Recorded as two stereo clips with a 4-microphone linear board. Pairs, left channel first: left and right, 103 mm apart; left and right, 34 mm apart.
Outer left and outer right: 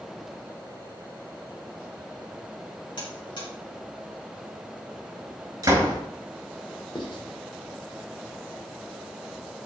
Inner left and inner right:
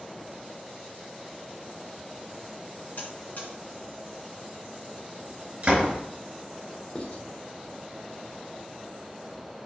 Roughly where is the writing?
Left.